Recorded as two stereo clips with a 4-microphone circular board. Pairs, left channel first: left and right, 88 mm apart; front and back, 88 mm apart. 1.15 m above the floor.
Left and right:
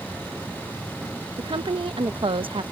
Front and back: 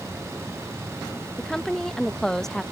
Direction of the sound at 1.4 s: 85° right.